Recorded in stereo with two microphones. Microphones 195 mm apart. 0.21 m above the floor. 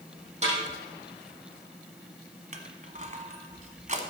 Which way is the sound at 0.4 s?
35° right (ahead or behind).